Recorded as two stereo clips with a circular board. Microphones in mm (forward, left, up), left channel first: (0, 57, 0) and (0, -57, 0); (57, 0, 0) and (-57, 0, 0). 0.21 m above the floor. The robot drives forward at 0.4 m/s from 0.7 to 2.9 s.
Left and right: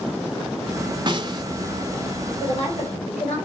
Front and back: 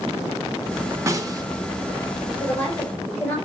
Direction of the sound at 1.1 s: 125° right.